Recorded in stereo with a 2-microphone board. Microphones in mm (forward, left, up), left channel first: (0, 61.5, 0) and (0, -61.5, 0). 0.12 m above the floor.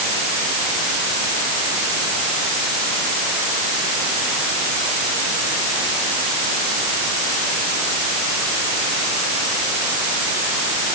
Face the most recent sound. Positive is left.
No sound to turn to.